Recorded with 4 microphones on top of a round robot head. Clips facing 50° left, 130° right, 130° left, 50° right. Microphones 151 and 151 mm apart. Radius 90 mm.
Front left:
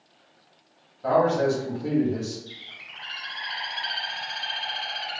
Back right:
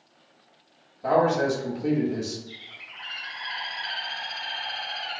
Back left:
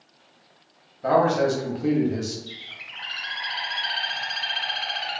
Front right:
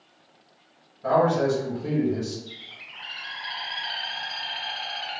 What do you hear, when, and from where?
1.0 s a man speaking: 155° left, 1.1 m
2.5 s a bird: 105° left, 0.5 m